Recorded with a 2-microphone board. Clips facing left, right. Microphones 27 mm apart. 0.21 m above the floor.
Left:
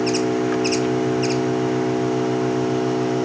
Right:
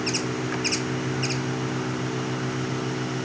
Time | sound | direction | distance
0.0 | an engine running | 70° left (ahead or behind) | ?